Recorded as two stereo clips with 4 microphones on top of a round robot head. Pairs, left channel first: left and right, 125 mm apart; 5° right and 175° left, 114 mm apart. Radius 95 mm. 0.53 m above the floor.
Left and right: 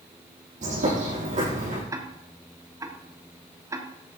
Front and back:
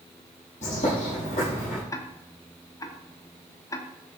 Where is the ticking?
45° right, 1.3 m.